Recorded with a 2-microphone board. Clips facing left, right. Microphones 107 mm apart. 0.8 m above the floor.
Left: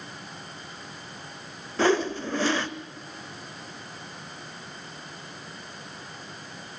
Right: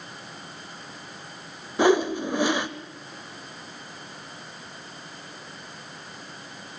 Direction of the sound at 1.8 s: 15° right (ahead or behind).